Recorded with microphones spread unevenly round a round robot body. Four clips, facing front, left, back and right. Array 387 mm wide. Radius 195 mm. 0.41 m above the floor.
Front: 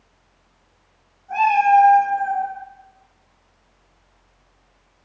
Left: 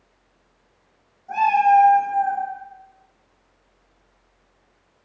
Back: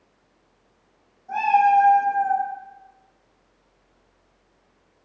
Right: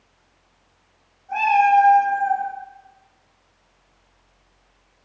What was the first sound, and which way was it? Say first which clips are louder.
A cat meowing: even, front 2 dB; 130° left.